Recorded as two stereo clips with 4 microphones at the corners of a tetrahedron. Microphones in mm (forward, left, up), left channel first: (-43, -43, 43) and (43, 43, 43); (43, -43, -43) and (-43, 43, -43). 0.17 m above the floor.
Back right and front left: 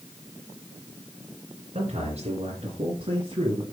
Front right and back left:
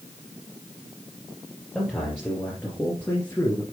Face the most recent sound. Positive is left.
turn(degrees=10)